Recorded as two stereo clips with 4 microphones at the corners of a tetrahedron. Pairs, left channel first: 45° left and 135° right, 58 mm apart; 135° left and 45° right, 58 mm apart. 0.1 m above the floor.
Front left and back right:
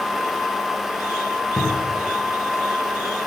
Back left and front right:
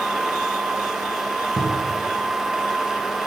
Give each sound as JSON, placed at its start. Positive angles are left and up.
{"t": 1.6, "sound": "a cupboard door", "azimuth_deg": 25, "distance_m": 7.5}